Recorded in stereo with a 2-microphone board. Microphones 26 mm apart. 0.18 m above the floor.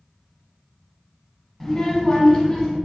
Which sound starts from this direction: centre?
A child speaking, at 1.6 s.